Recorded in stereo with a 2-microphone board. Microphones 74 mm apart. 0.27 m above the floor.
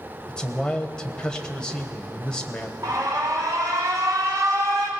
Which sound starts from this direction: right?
An alarm, at 2.8 s.